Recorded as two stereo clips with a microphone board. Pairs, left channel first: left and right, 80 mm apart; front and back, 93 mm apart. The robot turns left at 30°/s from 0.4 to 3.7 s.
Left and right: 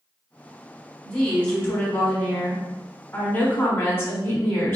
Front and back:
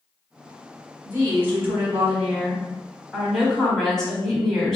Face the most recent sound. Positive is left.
turn(degrees=80)